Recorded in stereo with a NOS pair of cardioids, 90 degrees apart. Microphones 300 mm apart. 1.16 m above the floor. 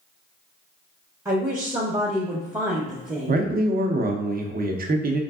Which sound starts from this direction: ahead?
A woman speaking, at 1.2 s.